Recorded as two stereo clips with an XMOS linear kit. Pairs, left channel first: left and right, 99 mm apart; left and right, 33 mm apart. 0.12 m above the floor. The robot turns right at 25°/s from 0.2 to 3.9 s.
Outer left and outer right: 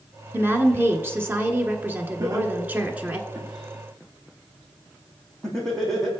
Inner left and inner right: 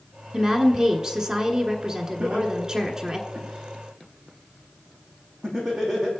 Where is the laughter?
40° right (ahead or behind), 5 m; by 6.1 s 5° left (ahead or behind), 5 m.